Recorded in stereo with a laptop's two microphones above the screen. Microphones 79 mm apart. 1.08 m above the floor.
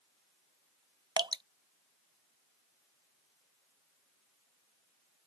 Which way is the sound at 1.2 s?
65° right (ahead or behind).